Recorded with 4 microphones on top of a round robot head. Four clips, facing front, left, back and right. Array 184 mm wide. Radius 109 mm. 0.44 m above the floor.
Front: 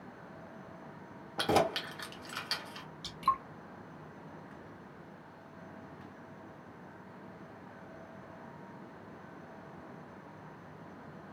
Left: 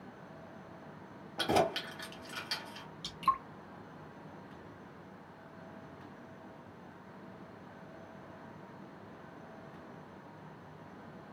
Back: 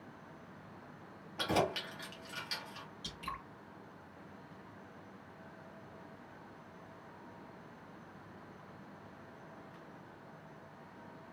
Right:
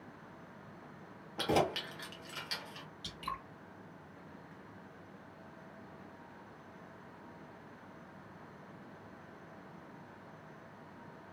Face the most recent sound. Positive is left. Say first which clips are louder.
# left 11 dB, front 14 dB
turn(degrees=30)